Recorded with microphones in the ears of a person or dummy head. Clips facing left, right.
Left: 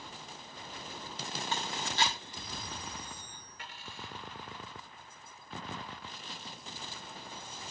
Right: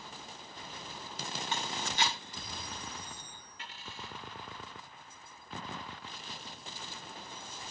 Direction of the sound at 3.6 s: 20° right (ahead or behind).